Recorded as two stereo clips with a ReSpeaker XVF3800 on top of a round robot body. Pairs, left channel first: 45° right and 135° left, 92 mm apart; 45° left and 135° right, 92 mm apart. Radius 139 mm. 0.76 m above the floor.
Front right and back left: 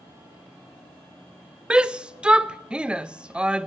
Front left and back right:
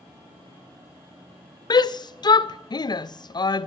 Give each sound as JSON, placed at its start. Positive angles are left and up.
{"t": 1.7, "sound": "a shout", "azimuth_deg": 60, "distance_m": 0.5}